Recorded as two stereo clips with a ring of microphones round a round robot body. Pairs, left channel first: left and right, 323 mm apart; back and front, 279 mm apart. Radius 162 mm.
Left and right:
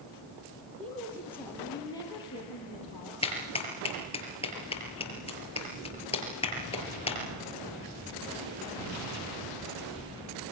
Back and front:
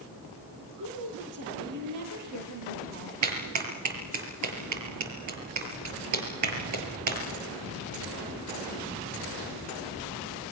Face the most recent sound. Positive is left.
turn(degrees=15)